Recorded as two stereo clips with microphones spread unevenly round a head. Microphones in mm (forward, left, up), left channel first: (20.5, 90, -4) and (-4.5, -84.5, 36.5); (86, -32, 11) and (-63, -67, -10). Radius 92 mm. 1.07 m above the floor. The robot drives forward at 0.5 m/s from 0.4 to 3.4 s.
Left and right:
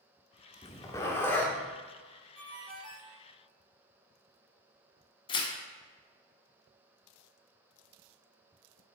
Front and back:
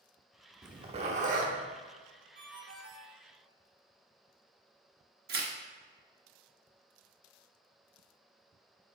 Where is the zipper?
160° left, 0.6 m; by 1.5 s 175° left, 0.9 m.